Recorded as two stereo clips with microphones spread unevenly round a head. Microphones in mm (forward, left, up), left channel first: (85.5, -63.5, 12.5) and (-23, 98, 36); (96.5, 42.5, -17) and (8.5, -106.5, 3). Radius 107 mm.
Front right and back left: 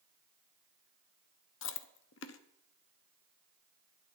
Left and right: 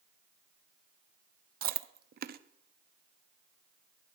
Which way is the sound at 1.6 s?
95° right.